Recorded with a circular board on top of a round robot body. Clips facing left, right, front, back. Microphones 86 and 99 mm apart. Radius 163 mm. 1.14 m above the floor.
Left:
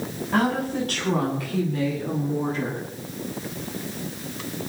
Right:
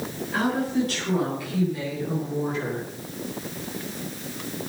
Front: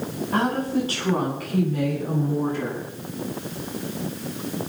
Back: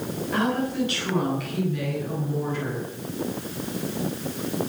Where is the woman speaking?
50° left, 10 m; by 2.8 s 40° left, 11.5 m.